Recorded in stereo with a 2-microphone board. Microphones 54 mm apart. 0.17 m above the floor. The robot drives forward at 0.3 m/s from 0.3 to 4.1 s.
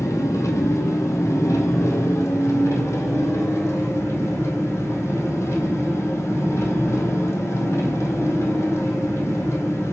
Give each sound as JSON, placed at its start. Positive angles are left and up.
{"t": 0.0, "sound": "an engine running", "side_deg": 75, "distance_m": 3.0}